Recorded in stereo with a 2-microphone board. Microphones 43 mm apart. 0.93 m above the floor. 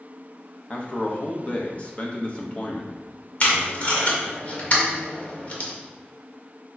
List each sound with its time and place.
0.7 s a man speaking: 35° left (ahead or behind), 1.1 m
3.4 s tape being pulled: 35° left (ahead or behind), 1.6 m